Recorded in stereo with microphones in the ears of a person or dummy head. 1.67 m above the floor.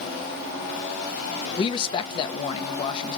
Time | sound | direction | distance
1.6 | a man speaking | 30° left (ahead or behind) | 0.5 m